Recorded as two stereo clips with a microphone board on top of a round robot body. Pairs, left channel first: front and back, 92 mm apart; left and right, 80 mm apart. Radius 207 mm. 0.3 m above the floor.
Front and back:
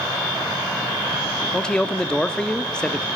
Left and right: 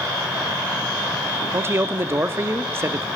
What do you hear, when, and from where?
1.5 s a man speaking: 75° right, 0.9 m